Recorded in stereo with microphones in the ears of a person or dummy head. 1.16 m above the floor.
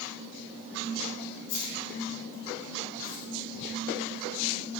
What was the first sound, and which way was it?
Keys jangling, 90° left.